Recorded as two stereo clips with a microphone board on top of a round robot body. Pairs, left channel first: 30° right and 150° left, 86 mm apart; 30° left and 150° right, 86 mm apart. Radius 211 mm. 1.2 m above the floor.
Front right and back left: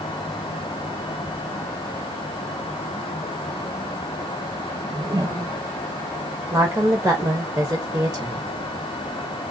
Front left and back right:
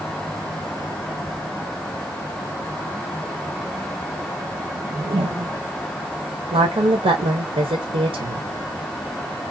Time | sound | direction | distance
4.8 | a whoosh | 155° right | 1.0 m
6.5 | a woman speaking | 140° right | 1.1 m